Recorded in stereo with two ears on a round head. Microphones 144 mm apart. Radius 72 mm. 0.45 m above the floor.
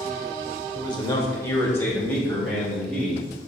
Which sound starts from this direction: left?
A man speaking, at 0.8 s.